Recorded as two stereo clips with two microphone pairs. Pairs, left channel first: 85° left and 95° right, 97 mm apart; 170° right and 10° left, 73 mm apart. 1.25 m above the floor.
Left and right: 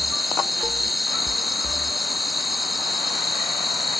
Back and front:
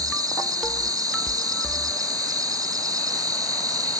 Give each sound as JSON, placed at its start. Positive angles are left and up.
{"t": 0.0, "sound": "an insect", "azimuth_deg": -5}